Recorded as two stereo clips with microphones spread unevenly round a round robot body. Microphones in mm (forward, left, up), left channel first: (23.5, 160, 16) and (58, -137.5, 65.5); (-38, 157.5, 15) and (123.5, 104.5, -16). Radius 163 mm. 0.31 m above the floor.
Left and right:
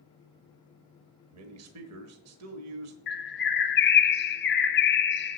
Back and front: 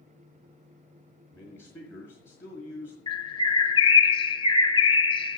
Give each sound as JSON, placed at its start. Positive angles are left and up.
{"t": 1.3, "sound": "a man speaking", "azimuth_deg": -110, "distance_m": 1.3}
{"t": 3.1, "sound": "a bird", "azimuth_deg": 100, "distance_m": 0.8}